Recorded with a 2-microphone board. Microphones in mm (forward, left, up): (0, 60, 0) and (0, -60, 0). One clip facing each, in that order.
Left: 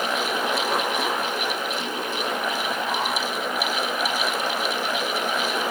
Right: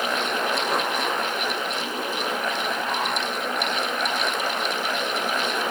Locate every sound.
Only background noise.